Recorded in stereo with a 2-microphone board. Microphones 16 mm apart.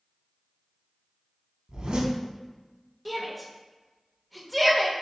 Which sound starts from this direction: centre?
A shout, at 3.0 s.